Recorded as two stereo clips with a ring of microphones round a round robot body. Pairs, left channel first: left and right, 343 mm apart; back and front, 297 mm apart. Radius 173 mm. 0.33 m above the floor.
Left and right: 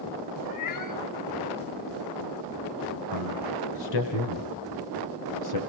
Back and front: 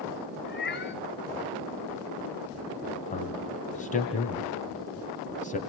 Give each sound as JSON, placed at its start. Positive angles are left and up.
{"t": 0.5, "sound": "a cat meowing", "azimuth_deg": 125, "distance_m": 3.5}
{"t": 3.1, "sound": "a man speaking", "azimuth_deg": 115, "distance_m": 2.5}